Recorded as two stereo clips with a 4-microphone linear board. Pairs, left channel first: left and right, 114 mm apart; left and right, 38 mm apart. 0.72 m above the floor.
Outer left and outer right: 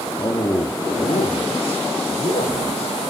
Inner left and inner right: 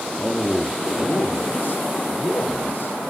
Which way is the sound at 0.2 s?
30° left (ahead or behind).